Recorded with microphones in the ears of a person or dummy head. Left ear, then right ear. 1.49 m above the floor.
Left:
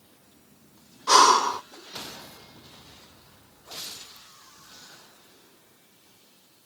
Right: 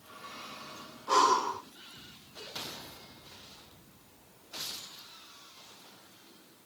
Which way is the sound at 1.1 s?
60° left (ahead or behind).